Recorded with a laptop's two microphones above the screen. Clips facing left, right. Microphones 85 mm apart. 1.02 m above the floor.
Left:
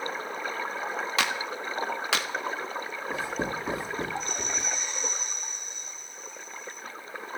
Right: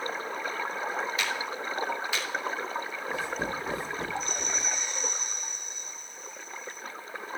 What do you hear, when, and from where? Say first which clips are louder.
1.2 s a clap: left 2 dB; 75° left (ahead or behind), 1.7 m
3.1 s writing: left 1 dB; 30° left (ahead or behind), 8 m